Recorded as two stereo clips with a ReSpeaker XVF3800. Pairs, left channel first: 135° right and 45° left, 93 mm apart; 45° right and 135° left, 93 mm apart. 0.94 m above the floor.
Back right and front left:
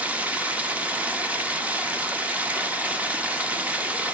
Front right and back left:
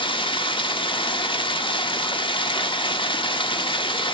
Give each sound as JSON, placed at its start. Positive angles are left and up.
{"t": 0.0, "sound": "running water", "azimuth_deg": -30, "distance_m": 1.0}